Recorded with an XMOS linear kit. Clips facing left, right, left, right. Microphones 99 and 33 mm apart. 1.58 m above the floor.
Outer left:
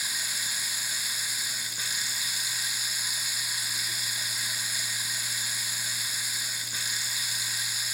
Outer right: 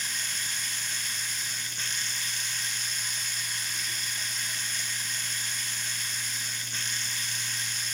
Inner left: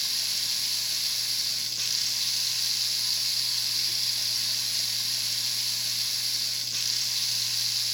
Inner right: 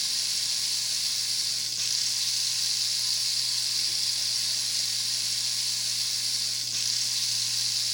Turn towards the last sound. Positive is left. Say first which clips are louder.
# even, even
turn(degrees=10)  # may be behind; listen again after turning